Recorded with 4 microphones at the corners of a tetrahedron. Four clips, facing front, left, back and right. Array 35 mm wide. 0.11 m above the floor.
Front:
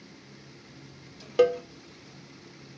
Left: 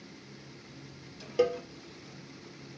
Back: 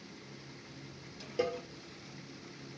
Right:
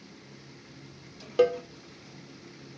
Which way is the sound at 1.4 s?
25° right.